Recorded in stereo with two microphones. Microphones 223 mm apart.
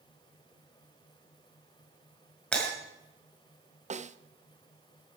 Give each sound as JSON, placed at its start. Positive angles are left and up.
{"t": 2.5, "sound": "breaking glass", "side_deg": 5, "distance_m": 6.0}
{"t": 3.9, "sound": "a snare drum", "side_deg": -30, "distance_m": 0.5}